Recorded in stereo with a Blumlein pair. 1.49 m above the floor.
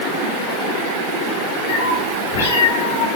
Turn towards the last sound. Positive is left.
turn(degrees=65)